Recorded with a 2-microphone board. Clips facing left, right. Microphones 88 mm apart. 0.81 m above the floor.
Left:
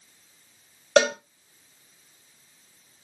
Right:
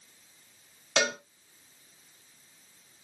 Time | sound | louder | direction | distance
1.0 | a cowbell | left 9 dB | 55° left (ahead or behind) | 2.5 m